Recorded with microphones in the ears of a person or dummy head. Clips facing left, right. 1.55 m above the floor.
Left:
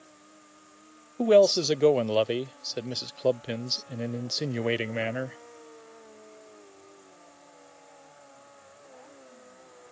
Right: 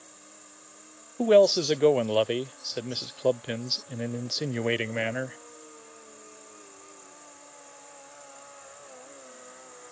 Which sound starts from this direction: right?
An insect, at 0.0 s.